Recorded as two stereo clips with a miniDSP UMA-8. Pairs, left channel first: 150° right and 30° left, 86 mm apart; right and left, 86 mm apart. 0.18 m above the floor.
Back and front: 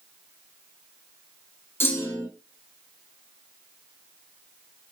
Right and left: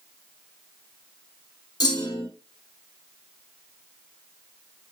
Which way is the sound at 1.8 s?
95° right.